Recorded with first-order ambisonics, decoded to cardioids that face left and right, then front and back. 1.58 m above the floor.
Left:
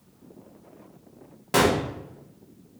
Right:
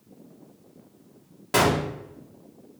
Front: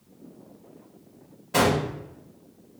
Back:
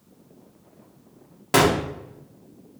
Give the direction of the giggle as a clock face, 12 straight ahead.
No giggle in this recording.